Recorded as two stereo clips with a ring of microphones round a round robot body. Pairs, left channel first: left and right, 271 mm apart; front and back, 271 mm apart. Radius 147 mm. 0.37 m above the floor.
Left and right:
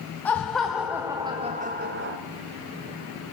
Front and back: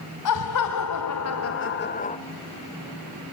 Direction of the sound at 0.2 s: 5° left.